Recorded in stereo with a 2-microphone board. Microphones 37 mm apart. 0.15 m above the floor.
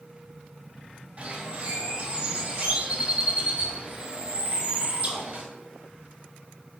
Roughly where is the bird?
Right.